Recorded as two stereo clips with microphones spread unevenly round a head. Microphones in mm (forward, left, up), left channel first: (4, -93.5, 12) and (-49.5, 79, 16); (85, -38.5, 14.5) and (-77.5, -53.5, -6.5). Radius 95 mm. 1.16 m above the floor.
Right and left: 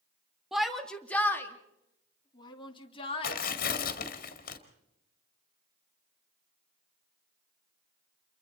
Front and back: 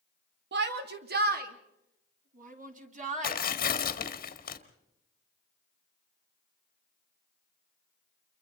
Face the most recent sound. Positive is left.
turn(degrees=-25)